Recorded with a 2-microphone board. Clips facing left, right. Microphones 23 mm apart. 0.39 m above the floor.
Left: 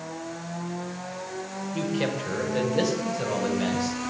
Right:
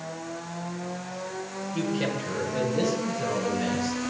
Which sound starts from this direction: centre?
A man speaking, at 1.7 s.